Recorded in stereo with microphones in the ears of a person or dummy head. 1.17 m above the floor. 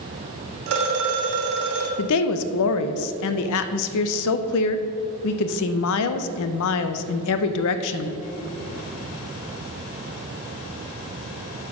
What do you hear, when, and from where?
0.7 s a phone ringing: 55° right (ahead or behind), 1.7 m
2.0 s a woman speaking: 70° left (ahead or behind), 0.6 m